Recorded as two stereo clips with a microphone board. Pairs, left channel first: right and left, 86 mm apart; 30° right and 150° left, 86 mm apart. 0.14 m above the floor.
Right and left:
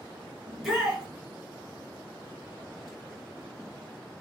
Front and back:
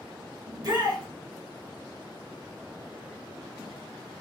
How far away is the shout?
About 1.9 m.